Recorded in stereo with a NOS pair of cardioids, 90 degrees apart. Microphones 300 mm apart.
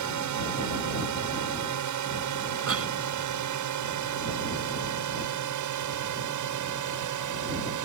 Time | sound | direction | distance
0.0 | a drone | 65° right | ?
2.7 | a cough | 45° right | ?